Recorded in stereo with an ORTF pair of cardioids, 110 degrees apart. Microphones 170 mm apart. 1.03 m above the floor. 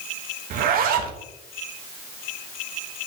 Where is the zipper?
70° right, 1.2 m.